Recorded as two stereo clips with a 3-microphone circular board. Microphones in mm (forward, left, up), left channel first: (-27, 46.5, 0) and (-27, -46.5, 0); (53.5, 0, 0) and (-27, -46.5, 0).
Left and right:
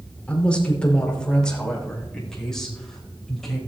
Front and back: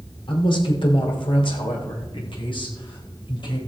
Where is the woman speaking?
15° left, 3.5 m; by 3.6 s 5° left, 6 m.